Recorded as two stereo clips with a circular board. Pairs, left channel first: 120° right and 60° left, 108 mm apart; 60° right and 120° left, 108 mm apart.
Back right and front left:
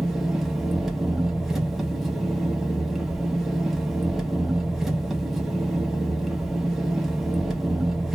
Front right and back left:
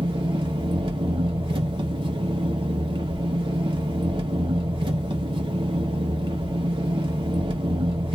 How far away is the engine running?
About 0.7 m.